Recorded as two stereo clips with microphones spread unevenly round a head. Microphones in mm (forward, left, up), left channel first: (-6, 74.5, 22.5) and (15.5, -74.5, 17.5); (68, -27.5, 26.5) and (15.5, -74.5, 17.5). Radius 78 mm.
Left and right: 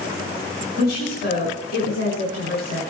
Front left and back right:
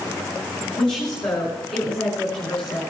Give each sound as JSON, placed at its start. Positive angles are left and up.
{"t": 0.8, "sound": "a woman speaking", "azimuth_deg": 75, "distance_m": 5.5}